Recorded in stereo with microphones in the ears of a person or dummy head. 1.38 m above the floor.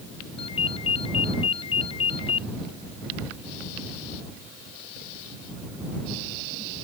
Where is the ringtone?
35° left (ahead or behind).